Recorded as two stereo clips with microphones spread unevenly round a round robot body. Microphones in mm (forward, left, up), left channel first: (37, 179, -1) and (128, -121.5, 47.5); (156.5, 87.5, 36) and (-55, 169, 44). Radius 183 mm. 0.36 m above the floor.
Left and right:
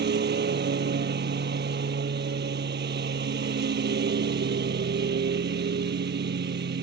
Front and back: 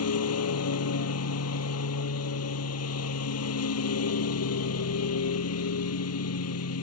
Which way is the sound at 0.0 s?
15° right.